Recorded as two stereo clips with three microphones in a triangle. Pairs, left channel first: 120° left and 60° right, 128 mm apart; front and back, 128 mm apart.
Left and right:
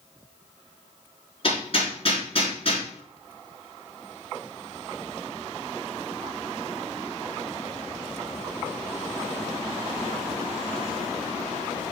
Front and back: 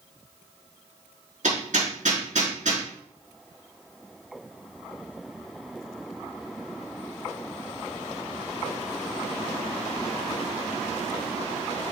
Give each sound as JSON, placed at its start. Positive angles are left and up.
{"t": 1.4, "sound": "hammering", "azimuth_deg": 165, "distance_m": 4.5}